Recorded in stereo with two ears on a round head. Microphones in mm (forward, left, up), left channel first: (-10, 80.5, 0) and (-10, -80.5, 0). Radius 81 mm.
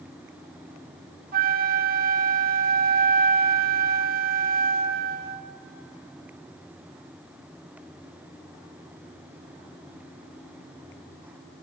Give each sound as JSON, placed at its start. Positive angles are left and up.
{"t": 1.3, "sound": "a flute", "side_deg": -45, "distance_m": 0.8}